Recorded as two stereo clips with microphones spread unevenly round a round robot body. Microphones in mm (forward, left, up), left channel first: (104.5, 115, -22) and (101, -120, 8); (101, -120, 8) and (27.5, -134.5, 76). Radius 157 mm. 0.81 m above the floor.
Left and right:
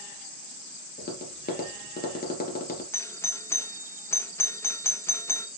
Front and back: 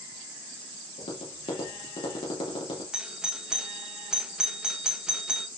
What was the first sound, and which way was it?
Tapping, 35° left.